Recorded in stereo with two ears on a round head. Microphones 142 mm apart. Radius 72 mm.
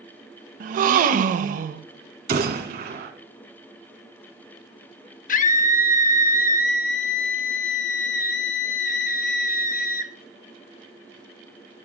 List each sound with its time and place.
0.6 s a gasp: 55° right (ahead or behind), 0.5 m
2.3 s a gunshot: 65° right (ahead or behind), 2 m
5.3 s a scream: 55° left (ahead or behind), 0.8 m